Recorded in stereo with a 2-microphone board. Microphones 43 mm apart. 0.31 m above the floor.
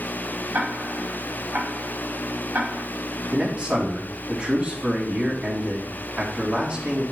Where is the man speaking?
30° right (ahead or behind), 3 m.